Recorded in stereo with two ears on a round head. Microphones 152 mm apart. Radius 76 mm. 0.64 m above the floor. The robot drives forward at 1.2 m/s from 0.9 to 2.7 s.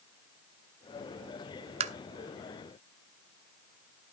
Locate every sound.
1.8 s tapping: 40° right (ahead or behind), 0.6 m